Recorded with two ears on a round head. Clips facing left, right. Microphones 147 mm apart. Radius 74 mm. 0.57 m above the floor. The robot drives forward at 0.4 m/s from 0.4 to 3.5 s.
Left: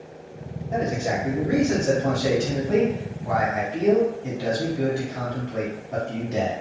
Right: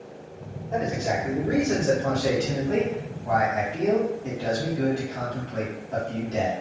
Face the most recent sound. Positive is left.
turn(degrees=15)  # may be behind; listen again after turning